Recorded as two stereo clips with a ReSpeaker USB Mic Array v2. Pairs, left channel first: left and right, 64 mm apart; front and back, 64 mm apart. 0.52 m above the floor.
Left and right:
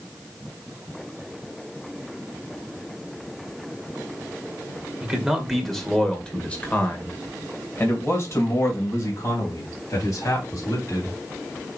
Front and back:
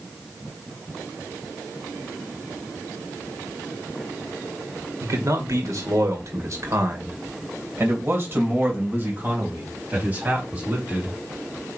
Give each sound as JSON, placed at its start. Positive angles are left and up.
{"t": 5.0, "sound": "a man speaking", "azimuth_deg": -170, "distance_m": 1.9}